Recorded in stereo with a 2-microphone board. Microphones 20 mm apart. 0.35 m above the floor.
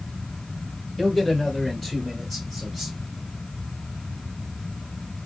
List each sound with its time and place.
1.0 s a man speaking: 15° left (ahead or behind), 1.6 m; by 3.0 s centre (ahead or behind), 1.7 m